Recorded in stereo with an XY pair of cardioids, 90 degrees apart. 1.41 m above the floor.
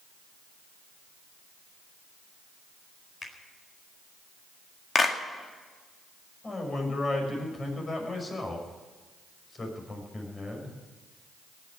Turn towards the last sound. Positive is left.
turn(degrees=35)